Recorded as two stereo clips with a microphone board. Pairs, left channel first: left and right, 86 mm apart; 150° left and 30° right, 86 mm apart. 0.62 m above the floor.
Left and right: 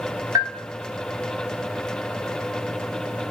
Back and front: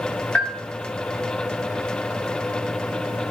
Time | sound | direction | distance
0.3 | a bell | 135° right | 0.9 m